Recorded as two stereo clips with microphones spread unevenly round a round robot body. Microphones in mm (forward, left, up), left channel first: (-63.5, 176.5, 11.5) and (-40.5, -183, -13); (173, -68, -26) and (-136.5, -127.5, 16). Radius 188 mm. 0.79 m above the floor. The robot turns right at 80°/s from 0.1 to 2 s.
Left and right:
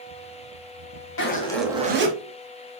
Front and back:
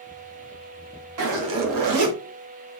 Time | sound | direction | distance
1.2 | a zipper | 145° left | 1.3 m